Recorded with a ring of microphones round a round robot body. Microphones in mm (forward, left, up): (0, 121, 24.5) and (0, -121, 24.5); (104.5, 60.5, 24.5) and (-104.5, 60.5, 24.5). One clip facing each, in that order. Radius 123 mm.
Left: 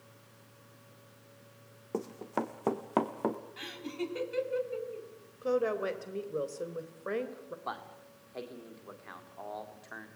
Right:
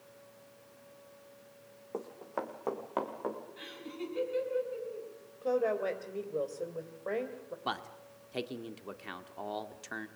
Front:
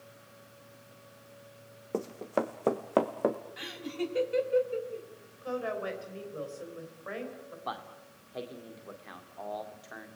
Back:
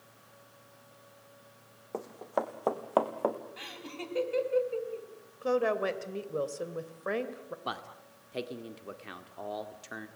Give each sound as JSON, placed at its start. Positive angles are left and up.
{"t": 1.9, "sound": "running footsteps", "azimuth_deg": 50, "distance_m": 1.6}
{"t": 3.6, "sound": "laughter", "azimuth_deg": 75, "distance_m": 5.0}
{"t": 5.4, "sound": "a woman speaking", "azimuth_deg": 160, "distance_m": 3.0}
{"t": 7.7, "sound": "a man speaking", "azimuth_deg": -125, "distance_m": 1.8}